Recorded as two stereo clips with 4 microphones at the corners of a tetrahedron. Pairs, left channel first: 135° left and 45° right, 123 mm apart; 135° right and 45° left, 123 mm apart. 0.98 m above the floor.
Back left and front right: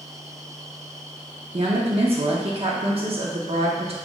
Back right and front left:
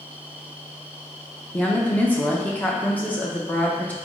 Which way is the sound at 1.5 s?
60° right.